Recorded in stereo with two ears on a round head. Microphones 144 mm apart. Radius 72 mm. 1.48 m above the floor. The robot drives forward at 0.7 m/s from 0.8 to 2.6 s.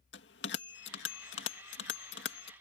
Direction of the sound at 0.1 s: 75° left (ahead or behind).